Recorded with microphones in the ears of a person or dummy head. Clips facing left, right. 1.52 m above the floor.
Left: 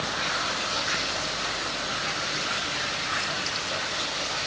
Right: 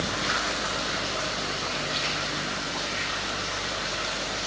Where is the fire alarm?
I don't hear a fire alarm.